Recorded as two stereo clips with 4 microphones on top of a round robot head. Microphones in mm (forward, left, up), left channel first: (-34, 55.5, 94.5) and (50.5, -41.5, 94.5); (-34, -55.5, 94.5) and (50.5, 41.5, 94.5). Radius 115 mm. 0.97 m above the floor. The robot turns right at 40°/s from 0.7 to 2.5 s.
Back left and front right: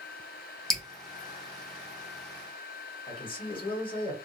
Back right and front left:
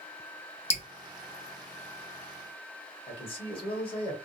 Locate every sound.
0.7 s dripping: 145° right, 1.0 m; by 0.8 s 140° right, 1.0 m
3.1 s a man speaking: straight behind, 1.2 m